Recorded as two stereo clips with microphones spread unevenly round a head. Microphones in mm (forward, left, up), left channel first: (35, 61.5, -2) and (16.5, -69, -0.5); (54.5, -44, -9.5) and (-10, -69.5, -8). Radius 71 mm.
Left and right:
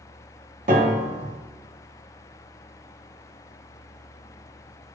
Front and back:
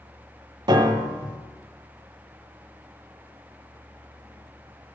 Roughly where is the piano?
Behind right.